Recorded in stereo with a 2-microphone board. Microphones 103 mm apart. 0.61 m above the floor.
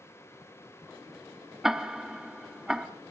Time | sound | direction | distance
1.6 | ticking | 5° right (ahead or behind) | 0.9 m